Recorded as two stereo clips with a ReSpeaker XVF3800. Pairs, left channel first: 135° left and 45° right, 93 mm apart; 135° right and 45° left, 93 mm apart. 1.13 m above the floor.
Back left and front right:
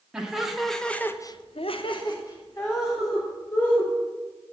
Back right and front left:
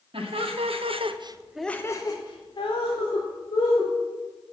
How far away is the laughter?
About 2.0 m.